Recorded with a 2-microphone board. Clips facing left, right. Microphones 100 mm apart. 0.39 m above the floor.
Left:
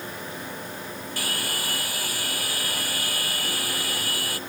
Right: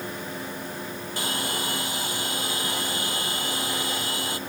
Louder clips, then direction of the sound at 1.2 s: Right 3 dB; 25° right (ahead or behind).